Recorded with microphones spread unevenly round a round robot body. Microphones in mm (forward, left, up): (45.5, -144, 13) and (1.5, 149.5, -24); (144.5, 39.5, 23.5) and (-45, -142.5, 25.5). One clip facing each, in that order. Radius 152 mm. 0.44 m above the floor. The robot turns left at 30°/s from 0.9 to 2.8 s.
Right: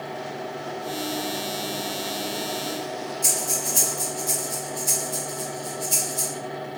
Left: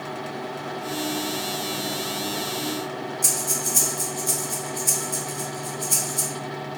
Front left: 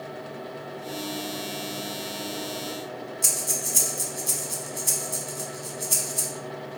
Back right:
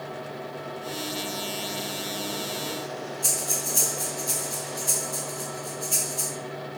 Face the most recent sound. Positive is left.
turn(degrees=30)